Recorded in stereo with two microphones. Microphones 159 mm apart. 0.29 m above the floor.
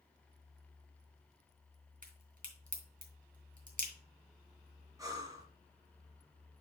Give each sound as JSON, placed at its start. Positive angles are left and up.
{"t": 2.0, "sound": "a crack", "side_deg": -55, "distance_m": 3.0}
{"t": 5.0, "sound": "breathing", "side_deg": -20, "distance_m": 1.7}